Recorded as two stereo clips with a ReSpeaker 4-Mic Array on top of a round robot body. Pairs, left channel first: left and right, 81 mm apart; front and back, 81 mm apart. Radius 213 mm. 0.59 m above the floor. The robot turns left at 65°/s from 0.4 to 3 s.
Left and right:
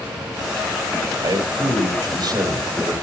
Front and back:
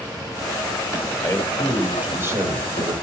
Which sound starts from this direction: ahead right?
A man speaking, at 1.2 s.